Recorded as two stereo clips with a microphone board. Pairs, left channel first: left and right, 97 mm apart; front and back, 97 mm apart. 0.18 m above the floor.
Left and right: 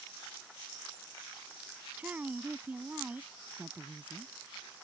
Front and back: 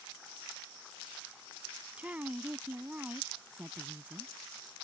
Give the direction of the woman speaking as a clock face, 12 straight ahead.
4 o'clock.